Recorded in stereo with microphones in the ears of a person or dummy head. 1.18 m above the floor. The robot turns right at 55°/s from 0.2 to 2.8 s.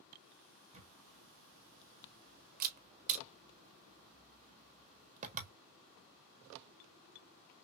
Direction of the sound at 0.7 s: 25° right (ahead or behind).